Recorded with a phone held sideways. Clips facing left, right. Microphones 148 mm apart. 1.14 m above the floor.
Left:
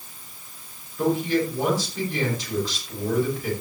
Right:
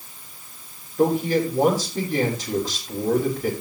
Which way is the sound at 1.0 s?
40° right (ahead or behind).